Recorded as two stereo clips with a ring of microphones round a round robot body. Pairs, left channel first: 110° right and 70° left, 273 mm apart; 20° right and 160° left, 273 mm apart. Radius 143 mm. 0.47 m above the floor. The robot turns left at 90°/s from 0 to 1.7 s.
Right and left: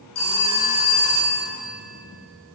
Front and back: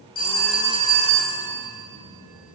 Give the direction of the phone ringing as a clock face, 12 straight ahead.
3 o'clock.